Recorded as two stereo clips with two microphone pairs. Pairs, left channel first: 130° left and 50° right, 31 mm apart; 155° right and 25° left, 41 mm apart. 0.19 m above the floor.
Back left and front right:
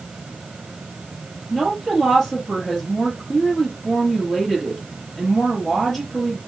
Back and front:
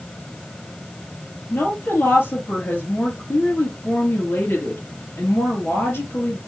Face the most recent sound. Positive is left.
turn(degrees=-155)